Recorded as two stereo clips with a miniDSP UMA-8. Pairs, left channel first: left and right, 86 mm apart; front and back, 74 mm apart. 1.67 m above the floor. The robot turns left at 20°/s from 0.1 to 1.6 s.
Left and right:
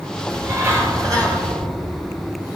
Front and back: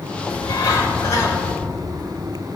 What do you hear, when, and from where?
0.3 s a bird: 30° right, 6 m; by 1.5 s 55° right, 6 m